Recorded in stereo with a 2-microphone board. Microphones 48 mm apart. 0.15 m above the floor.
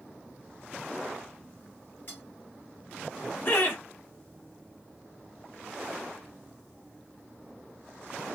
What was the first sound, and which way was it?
Cutlery clinking, 50° left (ahead or behind).